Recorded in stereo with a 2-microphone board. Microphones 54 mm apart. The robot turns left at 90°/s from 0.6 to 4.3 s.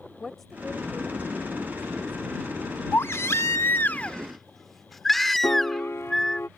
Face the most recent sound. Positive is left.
turn(degrees=55)  # may be behind; listen again after turning